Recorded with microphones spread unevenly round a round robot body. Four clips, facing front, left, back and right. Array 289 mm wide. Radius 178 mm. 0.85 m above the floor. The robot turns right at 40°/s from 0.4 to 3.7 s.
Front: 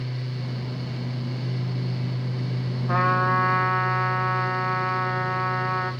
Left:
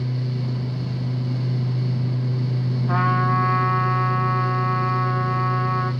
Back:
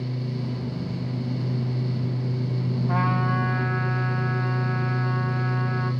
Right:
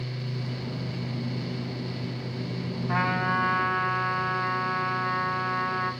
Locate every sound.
2.9 s a trumpet: 70° left, 3 m; by 5.9 s 105° left, 3 m